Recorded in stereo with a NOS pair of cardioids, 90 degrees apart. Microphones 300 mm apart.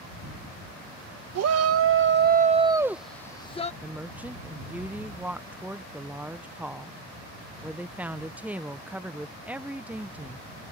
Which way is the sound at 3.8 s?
5° right.